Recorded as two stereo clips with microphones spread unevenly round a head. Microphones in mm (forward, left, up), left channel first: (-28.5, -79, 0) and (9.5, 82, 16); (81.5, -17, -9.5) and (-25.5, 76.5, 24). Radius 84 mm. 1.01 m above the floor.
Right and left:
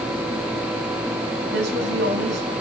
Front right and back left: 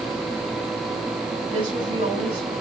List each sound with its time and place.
1.5 s a woman speaking: 85° left, 7.5 m